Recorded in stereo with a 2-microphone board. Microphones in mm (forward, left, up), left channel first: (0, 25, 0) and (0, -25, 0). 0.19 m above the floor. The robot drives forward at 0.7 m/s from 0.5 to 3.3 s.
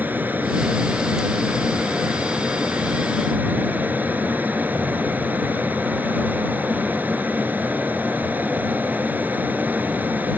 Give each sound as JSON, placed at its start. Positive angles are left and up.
{"t": 0.0, "sound": "an aircraft", "side_deg": -35}